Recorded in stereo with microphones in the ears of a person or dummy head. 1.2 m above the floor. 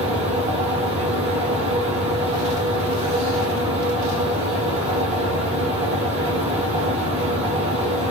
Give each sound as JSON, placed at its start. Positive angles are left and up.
{"t": 0.0, "sound": "a fan", "side_deg": -30, "distance_m": 0.8}